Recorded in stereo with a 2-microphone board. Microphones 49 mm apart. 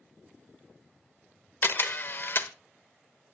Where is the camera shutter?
50° left (ahead or behind), 0.9 m.